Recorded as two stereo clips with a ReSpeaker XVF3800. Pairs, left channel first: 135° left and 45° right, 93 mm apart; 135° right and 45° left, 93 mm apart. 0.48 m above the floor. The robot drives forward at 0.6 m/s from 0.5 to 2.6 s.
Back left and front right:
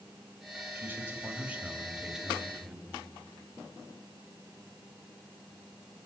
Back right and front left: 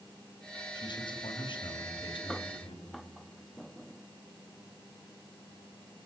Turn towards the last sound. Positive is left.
turn(degrees=-130)